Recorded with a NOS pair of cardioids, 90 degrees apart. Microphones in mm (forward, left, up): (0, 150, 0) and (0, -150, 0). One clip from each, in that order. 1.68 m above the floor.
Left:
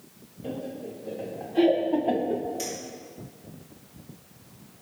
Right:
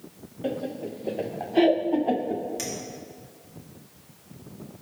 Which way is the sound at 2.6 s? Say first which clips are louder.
Even; 65° right.